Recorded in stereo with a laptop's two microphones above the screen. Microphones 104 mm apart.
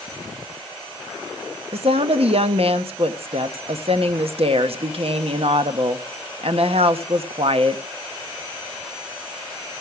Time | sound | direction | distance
1.7 | a woman speaking | 60° right (ahead or behind) | 1.2 m